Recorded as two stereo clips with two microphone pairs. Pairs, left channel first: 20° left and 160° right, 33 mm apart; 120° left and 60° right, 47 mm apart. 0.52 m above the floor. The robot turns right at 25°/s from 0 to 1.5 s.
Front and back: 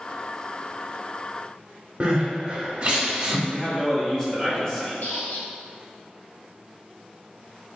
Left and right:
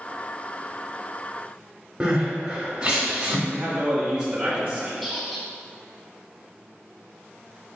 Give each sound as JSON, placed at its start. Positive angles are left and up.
{"t": 2.0, "sound": "crying", "azimuth_deg": -120, "distance_m": 1.0}
{"t": 3.5, "sound": "a man speaking", "azimuth_deg": -25, "distance_m": 1.0}
{"t": 5.0, "sound": "a squeak", "azimuth_deg": 30, "distance_m": 0.7}